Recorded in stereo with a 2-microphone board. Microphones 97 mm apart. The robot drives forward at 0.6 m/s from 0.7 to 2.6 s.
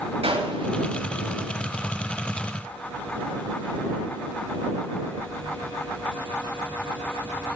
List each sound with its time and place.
0.2 s a gunshot: 80° right, 5.5 m